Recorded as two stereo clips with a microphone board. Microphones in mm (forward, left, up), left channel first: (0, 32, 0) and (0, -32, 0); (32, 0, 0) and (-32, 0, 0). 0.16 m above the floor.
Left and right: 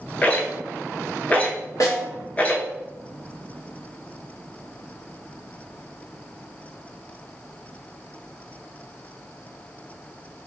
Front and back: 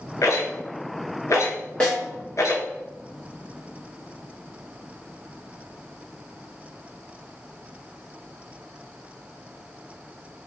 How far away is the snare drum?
About 1.2 m.